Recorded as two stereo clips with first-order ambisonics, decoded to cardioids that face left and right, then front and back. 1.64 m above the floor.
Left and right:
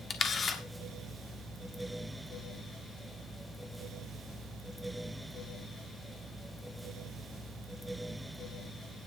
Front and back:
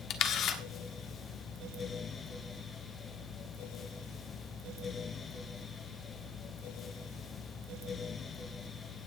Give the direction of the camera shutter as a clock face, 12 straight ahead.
11 o'clock.